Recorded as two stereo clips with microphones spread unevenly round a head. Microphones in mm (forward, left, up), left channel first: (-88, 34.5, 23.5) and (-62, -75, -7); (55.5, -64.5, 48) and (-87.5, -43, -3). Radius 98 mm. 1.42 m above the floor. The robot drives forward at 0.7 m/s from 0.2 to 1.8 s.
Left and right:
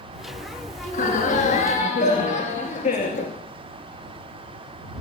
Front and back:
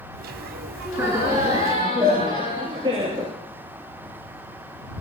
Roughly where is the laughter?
Left.